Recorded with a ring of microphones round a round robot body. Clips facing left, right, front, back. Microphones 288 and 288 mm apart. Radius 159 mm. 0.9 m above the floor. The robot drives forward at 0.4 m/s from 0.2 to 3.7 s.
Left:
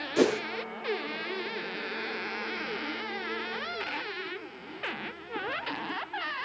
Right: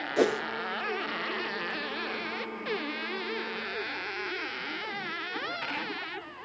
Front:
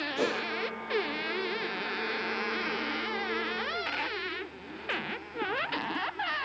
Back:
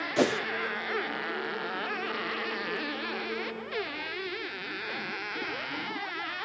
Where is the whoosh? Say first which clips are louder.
Left 1 dB, back 5 dB; 155° left, 0.8 m; by 0.4 s 160° left, 0.8 m.